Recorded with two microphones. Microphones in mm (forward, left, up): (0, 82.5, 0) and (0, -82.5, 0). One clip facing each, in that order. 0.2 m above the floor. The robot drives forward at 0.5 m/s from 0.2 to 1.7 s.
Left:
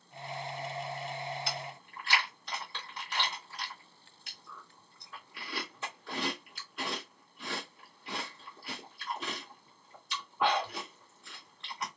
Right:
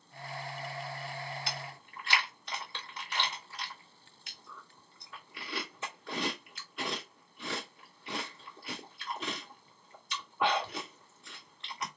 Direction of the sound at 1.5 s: Centre (ahead or behind).